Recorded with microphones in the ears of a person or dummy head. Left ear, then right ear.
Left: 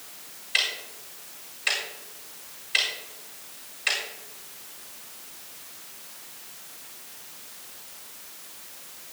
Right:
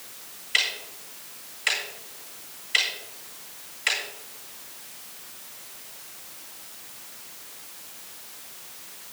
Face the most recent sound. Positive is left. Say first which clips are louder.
# right 1 dB
turn(degrees=-25)  # may be behind; listen again after turning